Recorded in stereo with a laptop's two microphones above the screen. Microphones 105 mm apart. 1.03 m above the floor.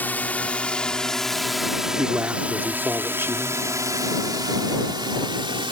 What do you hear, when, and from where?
0.0 s a drone: 15° left (ahead or behind); by 5.7 s 55° right (ahead or behind)
2.0 s a man speaking: 20° right (ahead or behind)